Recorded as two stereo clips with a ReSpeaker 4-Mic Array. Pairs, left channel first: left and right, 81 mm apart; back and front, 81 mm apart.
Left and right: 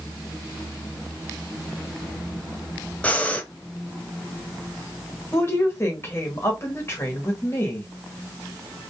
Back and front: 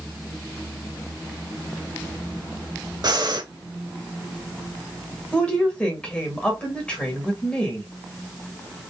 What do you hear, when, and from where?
3.0 s breathing: 20° left, 0.7 m
5.3 s a woman speaking: 115° left, 1.7 m